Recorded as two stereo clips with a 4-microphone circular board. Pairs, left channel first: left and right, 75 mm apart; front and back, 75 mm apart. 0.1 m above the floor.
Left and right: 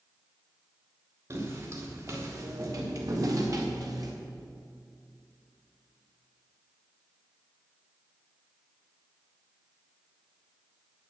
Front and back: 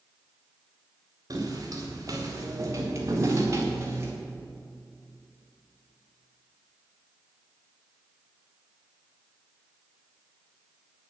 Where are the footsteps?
140° right, 5 m; by 4.1 s 125° right, 4 m.